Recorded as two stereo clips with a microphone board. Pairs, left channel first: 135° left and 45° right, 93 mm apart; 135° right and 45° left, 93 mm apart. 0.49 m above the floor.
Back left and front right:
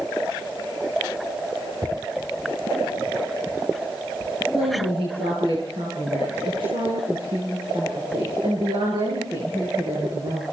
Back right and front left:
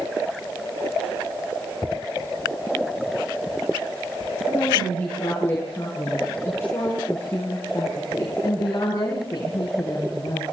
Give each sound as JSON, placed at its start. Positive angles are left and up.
{"t": 4.5, "sound": "a woman speaking", "azimuth_deg": -65, "distance_m": 8.5}